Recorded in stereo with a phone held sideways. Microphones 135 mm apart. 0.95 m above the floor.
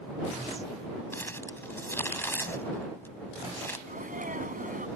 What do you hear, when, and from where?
1.1 s crumpling: 15° left (ahead or behind)
3.9 s a sneeze: 85° right